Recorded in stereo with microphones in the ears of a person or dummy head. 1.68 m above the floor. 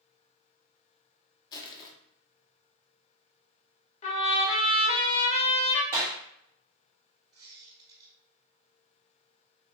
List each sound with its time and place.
1.5 s crushing: 25° left (ahead or behind), 0.6 m
4.0 s a trumpet: 35° left (ahead or behind), 0.9 m
5.9 s a clap: 15° right (ahead or behind), 0.6 m
7.3 s a squeak: 25° right (ahead or behind), 1.8 m